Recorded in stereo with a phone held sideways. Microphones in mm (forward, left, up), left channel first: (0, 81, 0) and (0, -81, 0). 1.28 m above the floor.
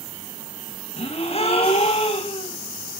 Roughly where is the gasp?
Left.